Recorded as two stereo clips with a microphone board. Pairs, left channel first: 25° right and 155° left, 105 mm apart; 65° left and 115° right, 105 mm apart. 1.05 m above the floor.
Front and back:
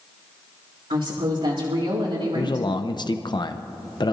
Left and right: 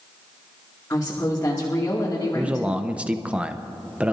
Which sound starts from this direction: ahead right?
A man speaking, at 2.4 s.